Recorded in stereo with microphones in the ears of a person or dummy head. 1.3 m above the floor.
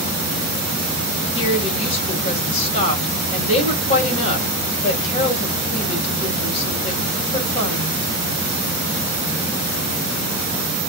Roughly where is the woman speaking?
Left.